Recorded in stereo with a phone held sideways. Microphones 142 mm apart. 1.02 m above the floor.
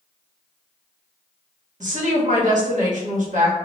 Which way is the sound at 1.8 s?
65° right (ahead or behind).